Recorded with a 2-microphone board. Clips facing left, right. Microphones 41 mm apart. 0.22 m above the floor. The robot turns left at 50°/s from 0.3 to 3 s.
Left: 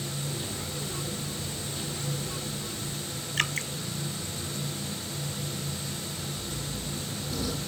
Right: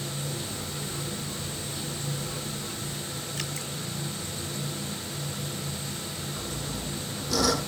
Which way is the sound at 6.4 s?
85° right.